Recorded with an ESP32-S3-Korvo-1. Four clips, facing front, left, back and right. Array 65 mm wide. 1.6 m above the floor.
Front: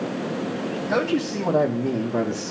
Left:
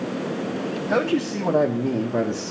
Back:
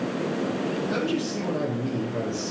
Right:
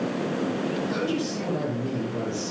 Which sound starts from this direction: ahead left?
A man speaking, at 0.9 s.